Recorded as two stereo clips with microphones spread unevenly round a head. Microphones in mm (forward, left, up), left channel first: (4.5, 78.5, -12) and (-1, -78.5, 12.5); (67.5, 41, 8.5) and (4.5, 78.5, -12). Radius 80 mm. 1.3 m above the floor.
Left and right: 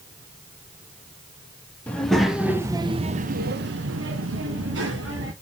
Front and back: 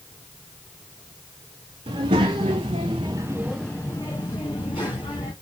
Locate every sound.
1.9 s a child speaking: 170° left, 1.5 m; by 5.3 s 75° right, 2 m